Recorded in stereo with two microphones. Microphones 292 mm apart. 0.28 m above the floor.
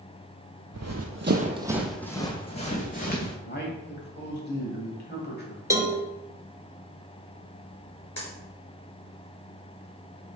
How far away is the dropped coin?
About 1.5 m.